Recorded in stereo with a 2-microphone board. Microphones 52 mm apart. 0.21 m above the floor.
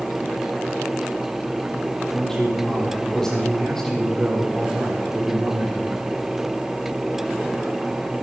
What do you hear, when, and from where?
2.1 s a man speaking: 10° left (ahead or behind), 6 m